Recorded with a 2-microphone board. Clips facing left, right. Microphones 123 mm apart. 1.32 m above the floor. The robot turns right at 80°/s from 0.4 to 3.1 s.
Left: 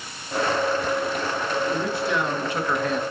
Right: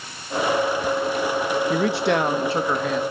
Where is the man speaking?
95° right, 1.7 m; by 3.0 s 10° left, 1.7 m.